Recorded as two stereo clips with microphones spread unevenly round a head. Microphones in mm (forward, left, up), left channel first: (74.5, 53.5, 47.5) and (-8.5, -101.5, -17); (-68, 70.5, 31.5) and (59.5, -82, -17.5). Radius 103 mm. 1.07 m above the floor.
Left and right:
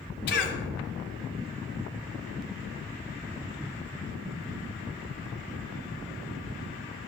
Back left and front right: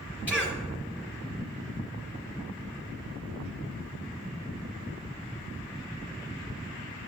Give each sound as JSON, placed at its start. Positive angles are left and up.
{"t": 0.3, "sound": "a cough", "azimuth_deg": 30, "distance_m": 2.5}